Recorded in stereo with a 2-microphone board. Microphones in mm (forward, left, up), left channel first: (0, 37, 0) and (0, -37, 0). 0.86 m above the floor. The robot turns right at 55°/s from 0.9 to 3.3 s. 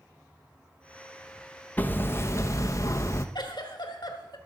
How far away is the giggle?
About 1.1 m.